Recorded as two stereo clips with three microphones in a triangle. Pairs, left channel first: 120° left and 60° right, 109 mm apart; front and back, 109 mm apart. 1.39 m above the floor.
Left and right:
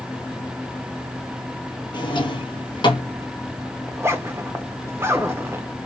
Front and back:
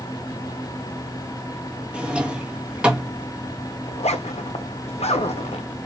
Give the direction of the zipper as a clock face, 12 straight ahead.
12 o'clock.